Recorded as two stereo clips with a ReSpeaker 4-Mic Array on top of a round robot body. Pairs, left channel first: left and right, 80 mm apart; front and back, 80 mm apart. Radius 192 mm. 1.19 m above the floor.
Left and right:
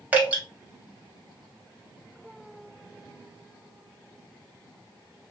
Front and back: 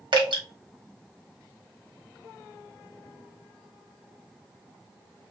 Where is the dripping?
160° right, 1.5 m.